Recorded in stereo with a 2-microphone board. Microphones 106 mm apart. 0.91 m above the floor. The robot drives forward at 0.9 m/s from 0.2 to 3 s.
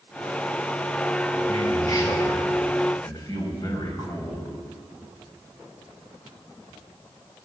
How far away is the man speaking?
About 6 m.